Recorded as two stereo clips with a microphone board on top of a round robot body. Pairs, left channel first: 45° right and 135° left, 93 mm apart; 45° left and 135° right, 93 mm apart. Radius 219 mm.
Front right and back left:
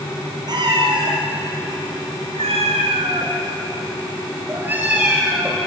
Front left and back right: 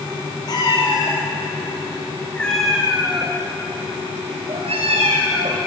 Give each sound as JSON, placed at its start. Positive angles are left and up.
{"t": 0.5, "sound": "a cat meowing", "azimuth_deg": 90, "distance_m": 4.5}